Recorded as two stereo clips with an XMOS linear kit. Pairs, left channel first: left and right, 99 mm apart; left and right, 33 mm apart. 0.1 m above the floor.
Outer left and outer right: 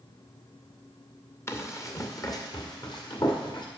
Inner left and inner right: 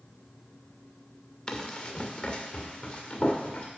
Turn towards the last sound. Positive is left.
turn(degrees=45)  # may be behind; listen again after turning